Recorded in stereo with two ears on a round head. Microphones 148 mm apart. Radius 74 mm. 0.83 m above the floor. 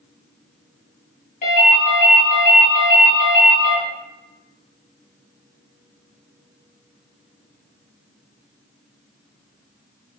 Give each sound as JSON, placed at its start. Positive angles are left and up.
{"t": 1.4, "sound": "a ringtone", "side_deg": 50, "distance_m": 0.9}